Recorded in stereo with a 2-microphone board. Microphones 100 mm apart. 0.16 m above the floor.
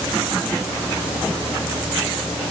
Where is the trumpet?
No trumpet in this recording.